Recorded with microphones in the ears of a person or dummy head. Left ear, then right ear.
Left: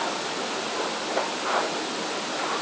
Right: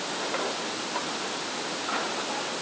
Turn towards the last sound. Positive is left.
No sound to turn to.